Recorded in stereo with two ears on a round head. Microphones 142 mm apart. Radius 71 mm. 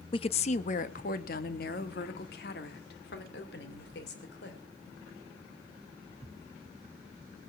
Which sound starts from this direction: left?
A woman speaking, at 0.1 s.